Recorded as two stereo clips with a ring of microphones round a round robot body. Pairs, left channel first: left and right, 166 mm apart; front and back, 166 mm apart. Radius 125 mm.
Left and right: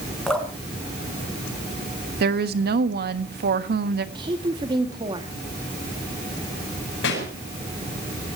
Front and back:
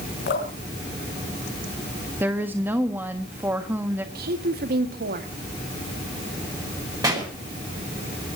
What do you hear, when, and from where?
0.3 s dripping: 5° left, 5 m
2.2 s a woman speaking: 100° right, 1.4 m
4.2 s a woman speaking: 155° right, 1.9 m
7.0 s a pop: 110° left, 8 m